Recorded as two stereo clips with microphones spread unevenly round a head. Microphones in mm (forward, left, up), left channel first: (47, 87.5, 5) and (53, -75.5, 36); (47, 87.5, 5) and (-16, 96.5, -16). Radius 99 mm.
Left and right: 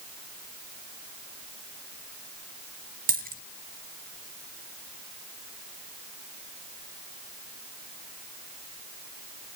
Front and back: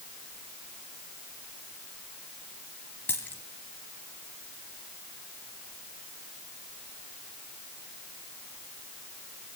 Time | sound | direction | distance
3.1 | a dropped coin | 75° right | 2.0 m